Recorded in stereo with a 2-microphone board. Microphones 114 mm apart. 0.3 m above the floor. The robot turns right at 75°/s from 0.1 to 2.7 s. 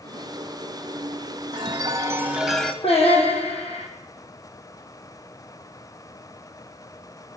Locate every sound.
1.5 s a chime: 75° right, 1.1 m; by 2.7 s 10° left, 1.1 m
2.8 s singing: 60° left (ahead or behind), 4 m